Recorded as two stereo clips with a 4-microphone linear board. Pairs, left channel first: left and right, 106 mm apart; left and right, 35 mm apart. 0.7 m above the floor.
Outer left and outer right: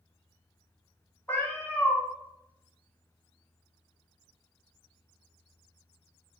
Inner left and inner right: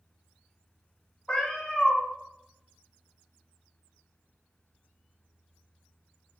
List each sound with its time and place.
1.3 s a cat meowing: 20° left (ahead or behind), 0.6 m